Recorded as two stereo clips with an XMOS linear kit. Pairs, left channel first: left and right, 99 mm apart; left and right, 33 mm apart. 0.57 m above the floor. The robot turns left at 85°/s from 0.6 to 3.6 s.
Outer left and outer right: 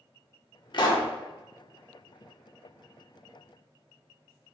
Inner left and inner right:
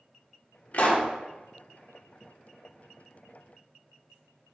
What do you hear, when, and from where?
0.7 s a pop: 55° left, 0.5 m; by 1.1 s 25° left, 0.5 m